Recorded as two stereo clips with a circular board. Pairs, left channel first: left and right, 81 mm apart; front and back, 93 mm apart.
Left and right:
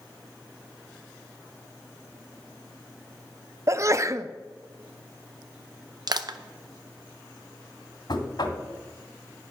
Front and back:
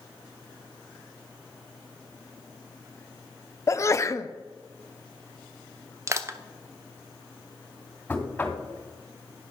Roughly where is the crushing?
Behind right.